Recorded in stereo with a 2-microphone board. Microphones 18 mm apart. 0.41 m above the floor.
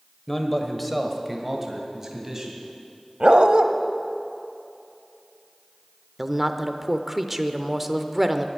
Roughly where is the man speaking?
Centre.